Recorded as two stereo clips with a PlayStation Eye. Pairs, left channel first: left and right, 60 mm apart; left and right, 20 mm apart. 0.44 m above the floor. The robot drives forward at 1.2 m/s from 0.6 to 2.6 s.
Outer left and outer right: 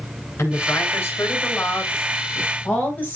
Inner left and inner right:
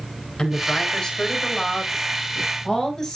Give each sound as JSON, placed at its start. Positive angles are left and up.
{"t": 0.4, "sound": "a woman speaking", "side_deg": 45, "distance_m": 5.0}